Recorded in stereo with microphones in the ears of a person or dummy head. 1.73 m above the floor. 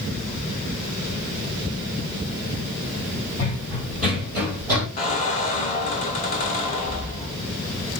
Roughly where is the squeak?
Left.